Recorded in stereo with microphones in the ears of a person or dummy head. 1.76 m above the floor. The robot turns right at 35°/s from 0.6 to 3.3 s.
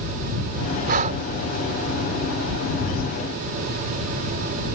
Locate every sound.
0.9 s breathing: 50° right (ahead or behind); by 1.2 s 40° right (ahead or behind)